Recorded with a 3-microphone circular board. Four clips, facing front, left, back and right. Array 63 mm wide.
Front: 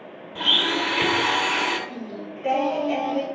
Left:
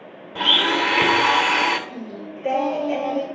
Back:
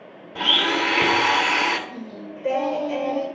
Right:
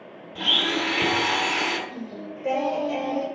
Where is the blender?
105° left, 1.6 m.